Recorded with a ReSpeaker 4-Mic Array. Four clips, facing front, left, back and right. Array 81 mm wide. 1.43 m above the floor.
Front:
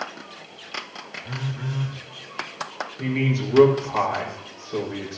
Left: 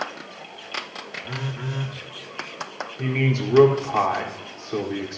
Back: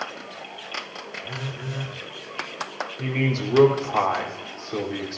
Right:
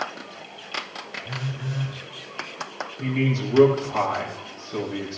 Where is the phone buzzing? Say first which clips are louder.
Left 2 dB, front 4 dB; 95° left, 2.5 m.